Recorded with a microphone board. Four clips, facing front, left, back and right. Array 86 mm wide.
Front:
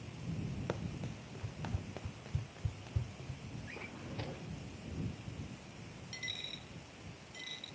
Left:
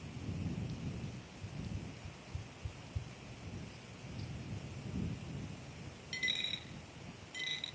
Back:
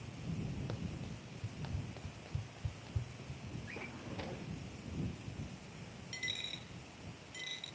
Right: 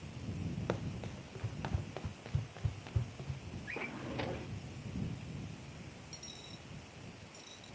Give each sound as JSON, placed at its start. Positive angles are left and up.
{"t": 0.7, "sound": "running footsteps", "azimuth_deg": -65}
{"t": 3.7, "sound": "a drawer", "azimuth_deg": -95}
{"t": 6.1, "sound": "a dropped coin", "azimuth_deg": 95}